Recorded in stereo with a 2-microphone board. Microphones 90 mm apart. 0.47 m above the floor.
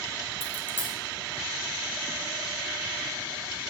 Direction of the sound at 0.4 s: 25° left (ahead or behind).